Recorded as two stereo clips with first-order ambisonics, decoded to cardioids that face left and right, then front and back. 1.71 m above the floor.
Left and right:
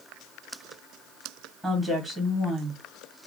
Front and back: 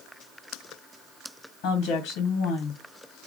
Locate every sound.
1.6 s a woman speaking: straight ahead, 1.2 m